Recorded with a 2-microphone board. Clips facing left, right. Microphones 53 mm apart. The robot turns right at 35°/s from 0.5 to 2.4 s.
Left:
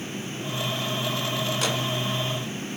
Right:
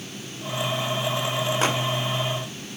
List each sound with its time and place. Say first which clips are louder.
1.6 s a microwave: right 5 dB; 35° right (ahead or behind), 1.2 m